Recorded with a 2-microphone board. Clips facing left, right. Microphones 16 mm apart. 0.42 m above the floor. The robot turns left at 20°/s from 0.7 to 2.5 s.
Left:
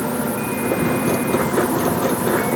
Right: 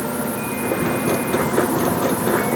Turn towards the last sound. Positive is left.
No sound to turn to.